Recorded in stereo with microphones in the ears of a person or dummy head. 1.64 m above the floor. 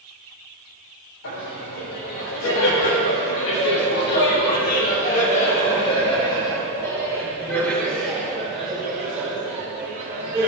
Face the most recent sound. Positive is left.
turn(degrees=-15)  # may be behind; listen again after turning